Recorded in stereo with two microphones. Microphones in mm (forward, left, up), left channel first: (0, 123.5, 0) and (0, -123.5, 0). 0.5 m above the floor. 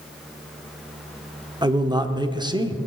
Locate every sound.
1.6 s a man speaking: 15° right (ahead or behind), 1.0 m